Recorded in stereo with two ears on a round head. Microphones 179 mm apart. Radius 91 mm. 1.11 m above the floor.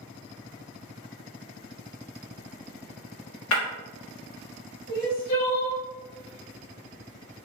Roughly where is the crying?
Left.